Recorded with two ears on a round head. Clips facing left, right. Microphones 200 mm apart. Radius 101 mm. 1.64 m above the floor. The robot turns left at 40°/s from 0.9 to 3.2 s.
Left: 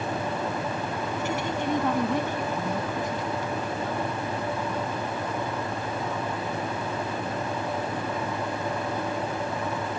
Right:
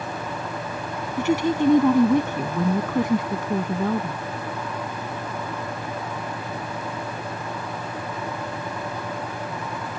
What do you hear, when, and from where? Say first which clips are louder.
1.2 s a woman speaking: right 12 dB; 50° right; by 4.2 s 130° right